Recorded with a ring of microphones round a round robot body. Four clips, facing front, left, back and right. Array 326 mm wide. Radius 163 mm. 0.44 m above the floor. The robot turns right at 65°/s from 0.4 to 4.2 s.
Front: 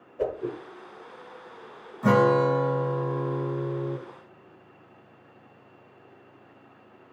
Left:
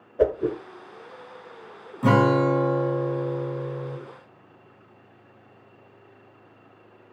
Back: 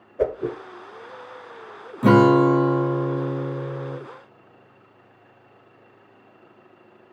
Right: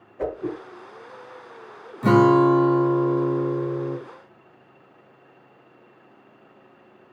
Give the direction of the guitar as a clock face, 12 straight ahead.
6 o'clock.